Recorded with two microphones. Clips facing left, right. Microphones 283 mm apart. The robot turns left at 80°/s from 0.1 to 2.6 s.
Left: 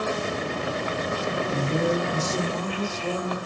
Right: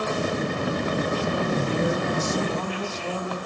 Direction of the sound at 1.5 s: 125° left.